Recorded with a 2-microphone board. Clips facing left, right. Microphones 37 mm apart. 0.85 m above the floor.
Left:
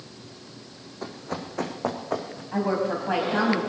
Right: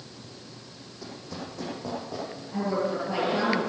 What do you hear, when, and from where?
1.0 s running footsteps: 45° left (ahead or behind), 2 m; by 2.4 s 60° left (ahead or behind), 3.5 m
2.5 s a woman speaking: 55° left (ahead or behind), 5 m